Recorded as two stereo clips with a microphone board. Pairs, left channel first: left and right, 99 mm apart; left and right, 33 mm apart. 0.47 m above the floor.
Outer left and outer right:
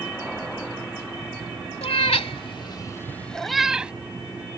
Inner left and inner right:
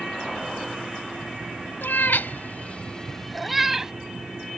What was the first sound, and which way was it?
A cat meowing, 85° left.